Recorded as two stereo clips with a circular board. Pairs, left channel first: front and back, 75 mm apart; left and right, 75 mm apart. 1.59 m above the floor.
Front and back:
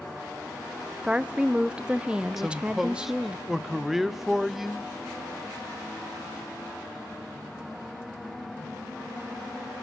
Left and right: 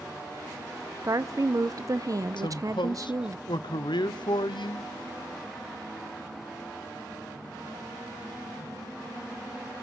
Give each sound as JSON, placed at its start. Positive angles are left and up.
{"t": 1.0, "sound": "a woman speaking", "azimuth_deg": -110, "distance_m": 0.6}
{"t": 2.4, "sound": "a man speaking", "azimuth_deg": 95, "distance_m": 0.8}